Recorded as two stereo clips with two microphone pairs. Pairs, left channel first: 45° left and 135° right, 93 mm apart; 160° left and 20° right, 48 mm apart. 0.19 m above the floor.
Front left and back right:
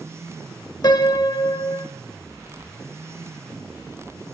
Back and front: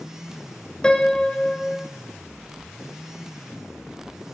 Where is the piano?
85° left, 0.6 m.